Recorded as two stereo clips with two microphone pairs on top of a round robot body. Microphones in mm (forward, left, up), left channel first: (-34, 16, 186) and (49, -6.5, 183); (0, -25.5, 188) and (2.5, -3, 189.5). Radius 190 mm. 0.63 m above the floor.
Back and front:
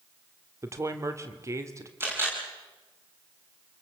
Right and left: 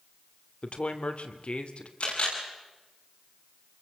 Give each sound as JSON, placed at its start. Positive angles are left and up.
{"t": 0.6, "sound": "a woman speaking", "azimuth_deg": -70, "distance_m": 2.5}
{"t": 2.0, "sound": "a camera shutter", "azimuth_deg": -80, "distance_m": 8.0}